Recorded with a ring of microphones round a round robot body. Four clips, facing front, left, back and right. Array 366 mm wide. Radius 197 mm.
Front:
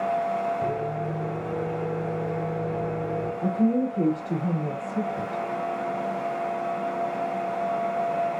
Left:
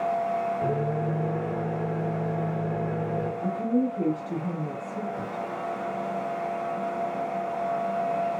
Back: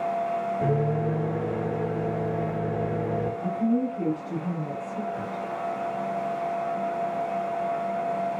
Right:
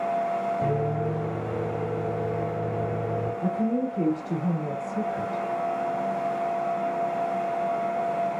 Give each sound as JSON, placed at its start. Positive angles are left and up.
{"t": 0.6, "sound": "a microwave", "azimuth_deg": -170, "distance_m": 1.5}
{"t": 3.4, "sound": "a woman speaking", "azimuth_deg": -20, "distance_m": 1.9}